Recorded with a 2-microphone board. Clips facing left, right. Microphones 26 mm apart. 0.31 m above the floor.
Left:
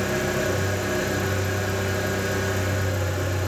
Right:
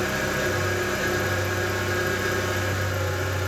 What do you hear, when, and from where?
0.0 s an engine running: 40° right (ahead or behind), 1.7 m